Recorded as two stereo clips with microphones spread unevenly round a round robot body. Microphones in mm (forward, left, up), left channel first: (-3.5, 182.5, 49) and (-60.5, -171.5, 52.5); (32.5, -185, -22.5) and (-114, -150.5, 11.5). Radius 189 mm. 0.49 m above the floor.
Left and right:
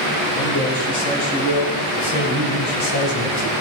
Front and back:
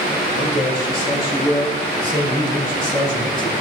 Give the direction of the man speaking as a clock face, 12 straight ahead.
10 o'clock.